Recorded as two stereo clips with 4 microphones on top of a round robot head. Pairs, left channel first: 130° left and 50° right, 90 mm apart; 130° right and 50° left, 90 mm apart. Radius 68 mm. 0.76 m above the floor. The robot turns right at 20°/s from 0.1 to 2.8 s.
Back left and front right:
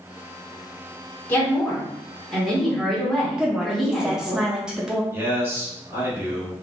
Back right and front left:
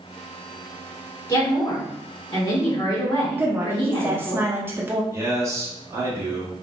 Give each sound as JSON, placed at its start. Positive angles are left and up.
{"t": 1.3, "sound": "a woman speaking", "azimuth_deg": -170, "distance_m": 1.6}
{"t": 3.4, "sound": "a woman speaking", "azimuth_deg": 25, "distance_m": 0.6}
{"t": 5.1, "sound": "a man speaking", "azimuth_deg": 10, "distance_m": 1.4}